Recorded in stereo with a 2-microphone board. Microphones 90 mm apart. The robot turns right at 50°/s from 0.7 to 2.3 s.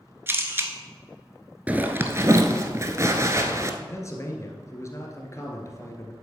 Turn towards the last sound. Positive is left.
turn(degrees=35)  # may be behind; listen again after turning